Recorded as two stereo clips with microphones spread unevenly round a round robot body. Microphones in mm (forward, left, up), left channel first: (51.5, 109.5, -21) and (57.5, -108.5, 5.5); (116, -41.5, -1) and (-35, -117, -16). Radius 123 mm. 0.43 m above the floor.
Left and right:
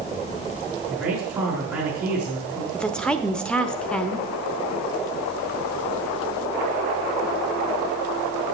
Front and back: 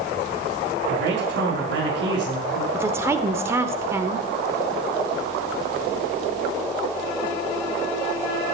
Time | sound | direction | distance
0.9 | a man speaking | 170° right | 5 m
2.7 | a woman speaking | 160° left | 0.9 m